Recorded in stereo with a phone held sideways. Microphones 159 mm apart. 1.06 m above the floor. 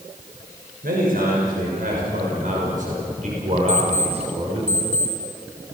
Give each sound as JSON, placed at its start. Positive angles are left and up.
{"t": 0.8, "sound": "a man speaking", "side_deg": -70, "distance_m": 5.5}
{"t": 3.7, "sound": "an alarm clock", "side_deg": -70, "distance_m": 4.0}